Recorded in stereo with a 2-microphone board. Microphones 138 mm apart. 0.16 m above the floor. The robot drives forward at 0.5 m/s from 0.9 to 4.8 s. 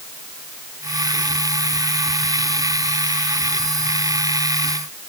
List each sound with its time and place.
Only background noise.